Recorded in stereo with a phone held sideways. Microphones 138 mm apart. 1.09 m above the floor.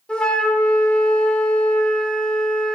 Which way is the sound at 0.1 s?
5° left (ahead or behind).